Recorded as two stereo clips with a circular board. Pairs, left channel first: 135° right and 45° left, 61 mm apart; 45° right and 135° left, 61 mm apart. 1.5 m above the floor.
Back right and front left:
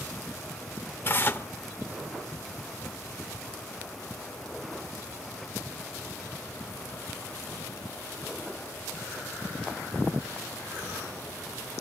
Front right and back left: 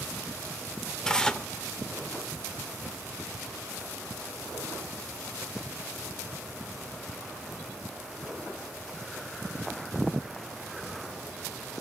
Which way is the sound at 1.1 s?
115° right.